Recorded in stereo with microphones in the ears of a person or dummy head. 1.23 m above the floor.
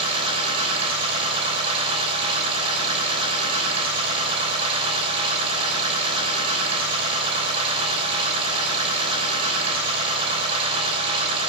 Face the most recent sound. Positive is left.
turn(degrees=-35)  # may be behind; listen again after turning